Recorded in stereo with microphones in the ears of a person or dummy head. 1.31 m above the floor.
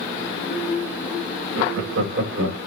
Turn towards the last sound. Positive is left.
turn(degrees=-60)  # may be behind; listen again after turning